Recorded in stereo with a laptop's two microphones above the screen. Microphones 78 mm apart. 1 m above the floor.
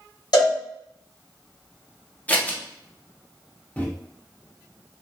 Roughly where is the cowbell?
Left.